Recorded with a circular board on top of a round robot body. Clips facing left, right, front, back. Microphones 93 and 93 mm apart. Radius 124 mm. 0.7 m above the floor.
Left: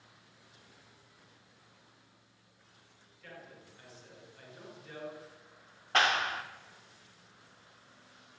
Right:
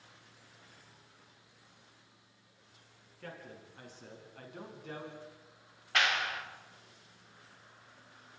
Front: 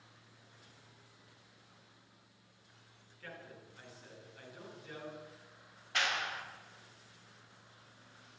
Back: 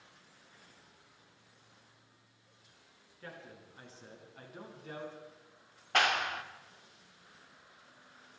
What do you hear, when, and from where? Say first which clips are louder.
3.2 s a man speaking: right 3 dB, back 1 dB; 120° right, 9.5 m; by 5.2 s 135° right, 7.5 m
5.9 s a clap: left 3 dB, back 6 dB; 145° left, 2.0 m